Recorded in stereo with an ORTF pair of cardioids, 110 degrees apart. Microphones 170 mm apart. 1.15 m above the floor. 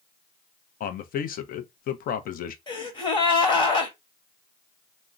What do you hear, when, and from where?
0.8 s a man speaking: 55° left, 0.7 m
2.7 s a gasp: 30° left, 1.3 m